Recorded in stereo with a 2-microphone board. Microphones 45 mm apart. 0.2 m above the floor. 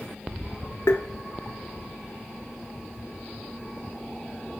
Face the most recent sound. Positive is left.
turn(degrees=75)  # may be behind; listen again after turning